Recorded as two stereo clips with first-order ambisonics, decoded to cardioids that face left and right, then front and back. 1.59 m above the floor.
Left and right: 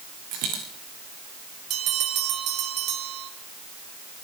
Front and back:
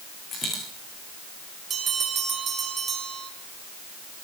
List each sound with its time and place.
0.3 s a dropped coin: 65° right, 6.5 m
1.7 s a bell: 120° right, 2.5 m